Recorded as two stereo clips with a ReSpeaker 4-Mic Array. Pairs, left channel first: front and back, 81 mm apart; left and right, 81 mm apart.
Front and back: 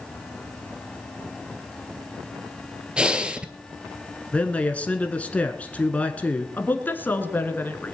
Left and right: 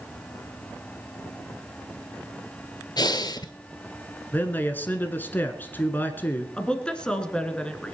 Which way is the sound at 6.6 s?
25° left.